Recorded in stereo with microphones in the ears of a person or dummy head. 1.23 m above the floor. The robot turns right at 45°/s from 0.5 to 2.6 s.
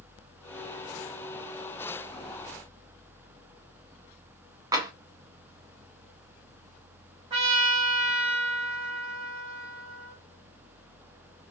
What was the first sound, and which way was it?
Tapping, 20° right (ahead or behind).